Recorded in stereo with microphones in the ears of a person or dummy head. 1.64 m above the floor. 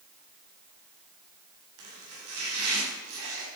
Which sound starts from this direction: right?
Chopping, at 1.8 s.